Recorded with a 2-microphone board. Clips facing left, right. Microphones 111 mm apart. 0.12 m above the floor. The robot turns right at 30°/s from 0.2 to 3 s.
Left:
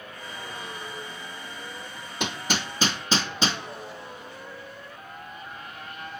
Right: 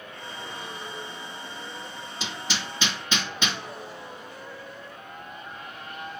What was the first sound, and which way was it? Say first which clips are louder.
Hammering: left 5 dB; 60° left (ahead or behind).